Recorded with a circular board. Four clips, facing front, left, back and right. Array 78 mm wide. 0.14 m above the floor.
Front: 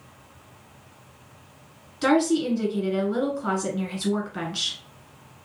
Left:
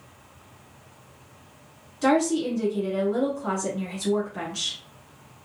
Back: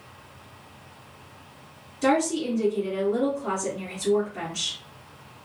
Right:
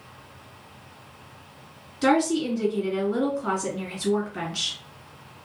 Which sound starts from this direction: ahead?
A woman speaking, at 2.0 s.